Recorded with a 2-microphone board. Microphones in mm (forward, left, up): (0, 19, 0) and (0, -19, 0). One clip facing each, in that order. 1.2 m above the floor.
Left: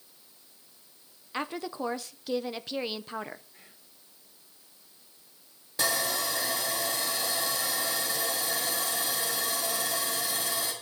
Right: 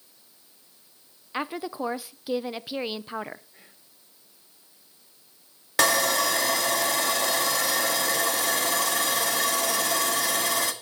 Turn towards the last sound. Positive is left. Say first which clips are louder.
# right 7 dB
turn(degrees=-85)